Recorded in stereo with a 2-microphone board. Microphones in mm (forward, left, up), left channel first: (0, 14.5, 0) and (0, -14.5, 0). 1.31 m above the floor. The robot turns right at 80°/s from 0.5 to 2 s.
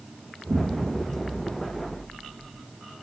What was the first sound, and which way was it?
An explosion, 60° right.